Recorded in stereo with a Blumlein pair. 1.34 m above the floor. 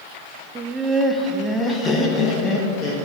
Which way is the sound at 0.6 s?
20° right.